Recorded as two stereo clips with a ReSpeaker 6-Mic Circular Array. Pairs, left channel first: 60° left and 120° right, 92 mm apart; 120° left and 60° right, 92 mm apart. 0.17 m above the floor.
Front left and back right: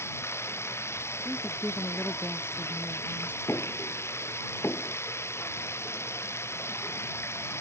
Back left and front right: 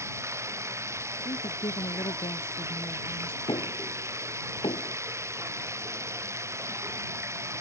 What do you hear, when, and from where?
0.0 s running water: straight ahead
1.2 s a woman speaking: 130° left
3.5 s knocking: 120° left